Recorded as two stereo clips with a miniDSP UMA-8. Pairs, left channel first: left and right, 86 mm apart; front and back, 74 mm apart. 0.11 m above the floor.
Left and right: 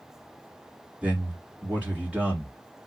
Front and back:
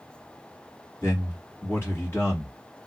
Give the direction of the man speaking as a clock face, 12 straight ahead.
1 o'clock.